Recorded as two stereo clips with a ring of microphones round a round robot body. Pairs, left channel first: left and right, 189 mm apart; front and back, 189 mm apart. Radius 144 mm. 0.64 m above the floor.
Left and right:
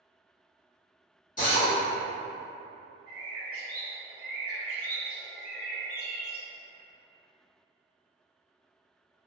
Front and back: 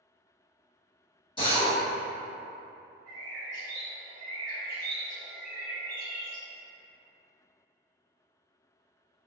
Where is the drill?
55° left, 1.5 m.